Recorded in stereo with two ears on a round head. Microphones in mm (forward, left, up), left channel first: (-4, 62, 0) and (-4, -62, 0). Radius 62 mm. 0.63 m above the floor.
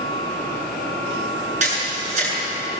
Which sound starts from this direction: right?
A camera shutter, at 1.6 s.